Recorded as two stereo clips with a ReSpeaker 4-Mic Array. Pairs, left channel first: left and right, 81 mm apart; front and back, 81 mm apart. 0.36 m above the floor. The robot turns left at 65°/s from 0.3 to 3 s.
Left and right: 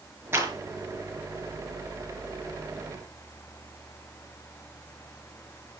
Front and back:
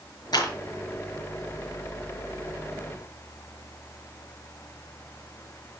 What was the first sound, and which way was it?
A clap, 30° right.